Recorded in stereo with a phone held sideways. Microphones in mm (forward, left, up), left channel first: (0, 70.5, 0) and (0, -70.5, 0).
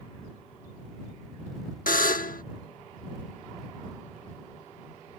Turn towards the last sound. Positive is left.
turn(degrees=80)